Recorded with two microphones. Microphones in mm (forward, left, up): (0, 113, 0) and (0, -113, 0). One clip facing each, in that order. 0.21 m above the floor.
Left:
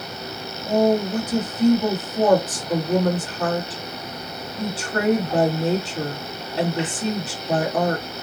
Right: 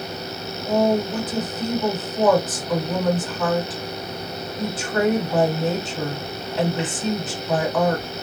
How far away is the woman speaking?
About 1.8 m.